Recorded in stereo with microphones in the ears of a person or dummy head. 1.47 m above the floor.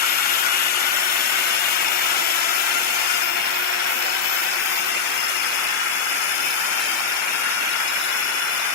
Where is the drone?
50° left (ahead or behind); by 8.8 s 70° left (ahead or behind).